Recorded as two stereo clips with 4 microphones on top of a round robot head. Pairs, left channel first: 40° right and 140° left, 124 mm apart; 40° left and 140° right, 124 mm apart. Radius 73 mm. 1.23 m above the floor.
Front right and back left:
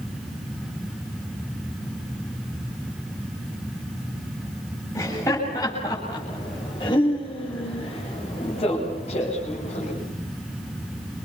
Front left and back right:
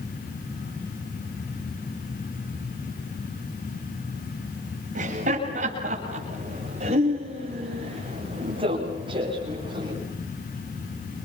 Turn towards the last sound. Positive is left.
turn(degrees=-80)